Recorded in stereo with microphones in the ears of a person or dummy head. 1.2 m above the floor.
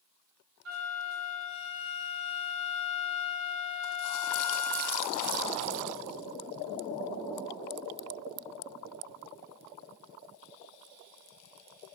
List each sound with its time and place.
0.7 s a flute: 75° right (ahead or behind), 0.7 m